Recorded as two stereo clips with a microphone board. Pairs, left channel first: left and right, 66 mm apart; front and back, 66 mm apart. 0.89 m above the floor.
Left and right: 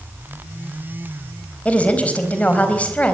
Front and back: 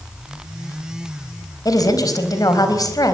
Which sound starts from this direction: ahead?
A woman speaking, at 1.6 s.